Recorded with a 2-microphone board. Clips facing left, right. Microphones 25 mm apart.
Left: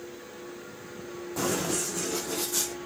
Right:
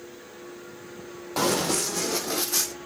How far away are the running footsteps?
About 1.0 m.